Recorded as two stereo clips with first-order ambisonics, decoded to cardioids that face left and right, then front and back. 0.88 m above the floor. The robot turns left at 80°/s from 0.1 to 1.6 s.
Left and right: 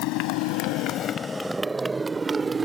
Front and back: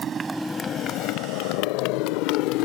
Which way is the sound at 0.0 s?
115° left.